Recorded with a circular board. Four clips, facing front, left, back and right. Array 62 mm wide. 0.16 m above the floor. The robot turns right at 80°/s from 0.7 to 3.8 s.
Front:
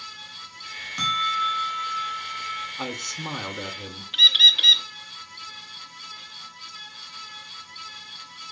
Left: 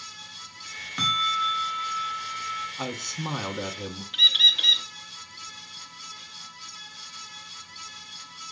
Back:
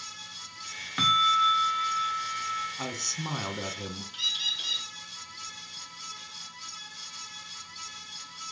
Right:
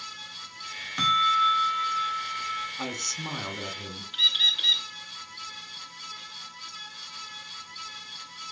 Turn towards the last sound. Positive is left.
turn(degrees=15)